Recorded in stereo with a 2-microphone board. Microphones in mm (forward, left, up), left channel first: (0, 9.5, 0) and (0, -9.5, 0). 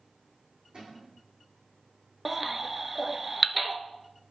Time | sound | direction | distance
0.7 | a cupboard door | 55° right (ahead or behind) | 4 m
2.2 | a baby crying | 10° right (ahead or behind) | 0.5 m